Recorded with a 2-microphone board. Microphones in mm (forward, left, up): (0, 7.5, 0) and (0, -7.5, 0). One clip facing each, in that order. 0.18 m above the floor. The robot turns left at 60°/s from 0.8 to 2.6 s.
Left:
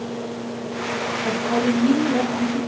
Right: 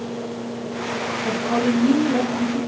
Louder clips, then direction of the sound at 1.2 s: Even; 20° left.